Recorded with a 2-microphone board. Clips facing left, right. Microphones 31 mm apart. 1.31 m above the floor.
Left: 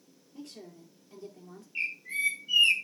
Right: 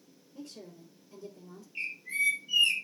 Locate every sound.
0.3 s a woman speaking: 65° left (ahead or behind), 3.5 m
1.8 s a bird: 30° left (ahead or behind), 1.8 m